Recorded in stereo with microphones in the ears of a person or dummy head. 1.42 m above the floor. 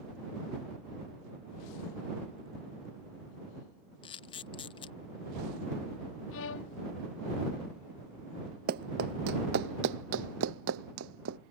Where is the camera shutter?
25° left (ahead or behind).